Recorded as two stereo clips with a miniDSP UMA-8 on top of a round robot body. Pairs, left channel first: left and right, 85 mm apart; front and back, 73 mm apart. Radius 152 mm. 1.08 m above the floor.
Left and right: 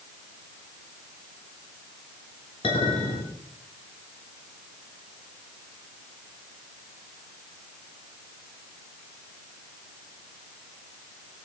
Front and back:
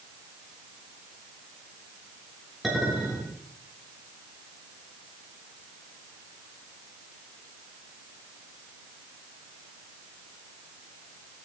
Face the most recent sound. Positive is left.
turn(degrees=90)